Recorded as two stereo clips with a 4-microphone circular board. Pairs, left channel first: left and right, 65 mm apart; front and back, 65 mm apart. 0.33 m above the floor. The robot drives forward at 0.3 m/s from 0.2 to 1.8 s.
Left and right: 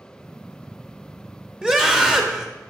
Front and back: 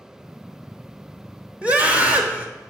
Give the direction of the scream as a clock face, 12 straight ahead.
5 o'clock.